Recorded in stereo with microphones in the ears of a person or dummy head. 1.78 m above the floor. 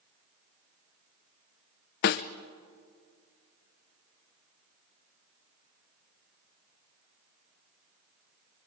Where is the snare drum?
45° left (ahead or behind), 0.6 m.